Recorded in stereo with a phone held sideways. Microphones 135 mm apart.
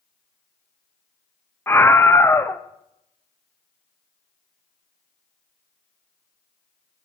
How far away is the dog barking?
I don't hear a dog barking.